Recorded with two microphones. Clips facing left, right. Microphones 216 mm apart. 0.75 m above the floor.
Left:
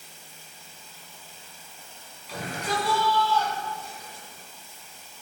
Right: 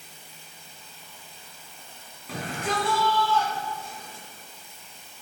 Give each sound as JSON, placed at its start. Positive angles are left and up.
{"t": 0.0, "sound": "running water", "side_deg": -65, "distance_m": 2.5}
{"t": 2.3, "sound": "a shout", "side_deg": -55, "distance_m": 6.0}